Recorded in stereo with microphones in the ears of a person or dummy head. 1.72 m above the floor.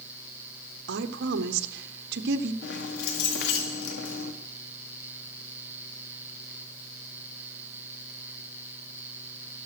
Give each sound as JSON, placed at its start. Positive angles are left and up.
{"t": 0.9, "sound": "a woman speaking", "side_deg": -65, "distance_m": 1.0}
{"t": 2.6, "sound": "keys jangling", "side_deg": 65, "distance_m": 1.8}